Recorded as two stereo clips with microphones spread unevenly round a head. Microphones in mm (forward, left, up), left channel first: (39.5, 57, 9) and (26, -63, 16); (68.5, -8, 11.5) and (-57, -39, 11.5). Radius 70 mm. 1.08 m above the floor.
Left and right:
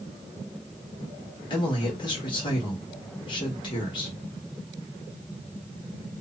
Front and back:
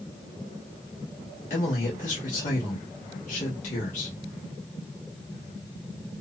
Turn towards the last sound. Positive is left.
turn(degrees=40)